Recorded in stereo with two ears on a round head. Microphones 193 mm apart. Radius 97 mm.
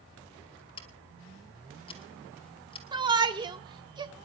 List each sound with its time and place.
0.8 s scissors: 25° left (ahead or behind), 2.5 m
2.9 s a shout: 20° right (ahead or behind), 1.5 m